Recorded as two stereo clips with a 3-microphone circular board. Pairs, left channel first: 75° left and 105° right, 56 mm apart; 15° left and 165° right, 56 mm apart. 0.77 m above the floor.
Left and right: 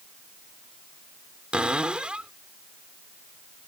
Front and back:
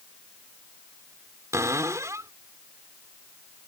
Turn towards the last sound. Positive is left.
turn(degrees=-175)